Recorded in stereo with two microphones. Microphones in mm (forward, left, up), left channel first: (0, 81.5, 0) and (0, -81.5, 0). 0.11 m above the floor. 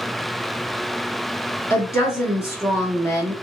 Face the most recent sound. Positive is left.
turn(degrees=15)  # may be behind; listen again after turning